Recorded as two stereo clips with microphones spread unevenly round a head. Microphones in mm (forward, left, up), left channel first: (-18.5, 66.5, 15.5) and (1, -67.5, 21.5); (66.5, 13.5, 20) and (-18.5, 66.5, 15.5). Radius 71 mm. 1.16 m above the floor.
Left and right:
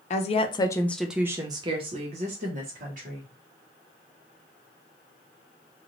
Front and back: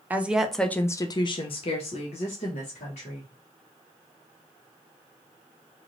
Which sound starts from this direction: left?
A woman speaking, at 0.1 s.